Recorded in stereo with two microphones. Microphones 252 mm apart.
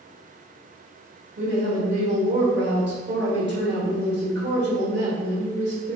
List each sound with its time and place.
1.4 s a woman speaking: 45° right (ahead or behind), 1.9 m